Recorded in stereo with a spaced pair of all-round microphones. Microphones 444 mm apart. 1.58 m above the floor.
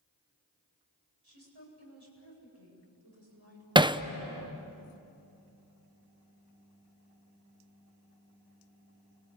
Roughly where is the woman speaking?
Right.